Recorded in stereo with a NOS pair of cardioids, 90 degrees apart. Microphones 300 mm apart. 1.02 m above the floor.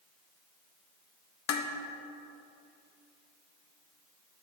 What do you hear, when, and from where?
1.5 s dishes clattering: 65° left, 0.6 m